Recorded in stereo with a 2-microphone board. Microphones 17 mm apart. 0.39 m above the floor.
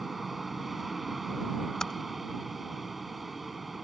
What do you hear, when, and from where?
0.0 s an aircraft: 10° right (ahead or behind)
1.8 s typing on a keyboard: 35° left (ahead or behind)